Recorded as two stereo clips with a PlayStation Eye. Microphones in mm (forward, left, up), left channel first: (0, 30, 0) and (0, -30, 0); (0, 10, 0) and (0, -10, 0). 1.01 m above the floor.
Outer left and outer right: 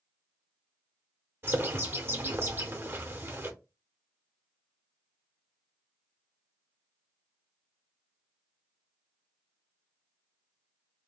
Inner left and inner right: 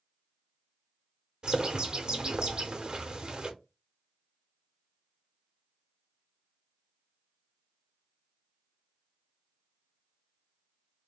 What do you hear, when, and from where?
1.4 s a bird: 40° right (ahead or behind), 0.9 m